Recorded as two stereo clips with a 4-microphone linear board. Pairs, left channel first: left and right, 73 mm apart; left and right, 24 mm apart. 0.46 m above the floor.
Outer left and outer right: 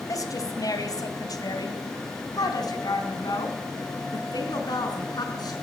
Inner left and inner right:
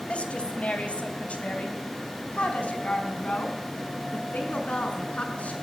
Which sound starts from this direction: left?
A woman speaking, at 0.1 s.